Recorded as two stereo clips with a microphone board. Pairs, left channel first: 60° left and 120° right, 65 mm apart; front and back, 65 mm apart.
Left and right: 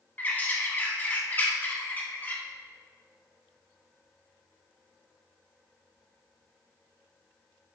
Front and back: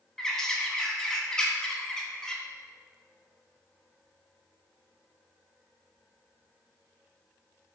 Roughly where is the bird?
Left.